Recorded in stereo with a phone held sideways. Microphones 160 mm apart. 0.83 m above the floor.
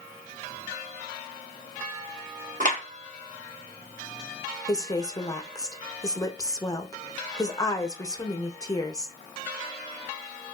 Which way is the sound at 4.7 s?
25° left (ahead or behind).